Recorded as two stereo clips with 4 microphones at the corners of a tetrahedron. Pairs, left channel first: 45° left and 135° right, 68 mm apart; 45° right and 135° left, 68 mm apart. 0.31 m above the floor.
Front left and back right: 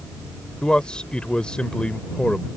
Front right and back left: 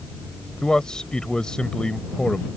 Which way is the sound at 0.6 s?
5° left.